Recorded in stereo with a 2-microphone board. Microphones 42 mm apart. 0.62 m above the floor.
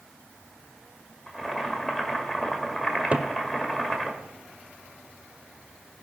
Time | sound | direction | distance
1.3 | boiling | 5° left (ahead or behind) | 1.6 m
3.1 | a cupboard door | 30° right (ahead or behind) | 0.6 m